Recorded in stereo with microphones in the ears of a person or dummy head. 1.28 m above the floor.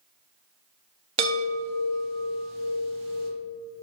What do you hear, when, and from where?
1.2 s a chime: 30° right (ahead or behind), 0.6 m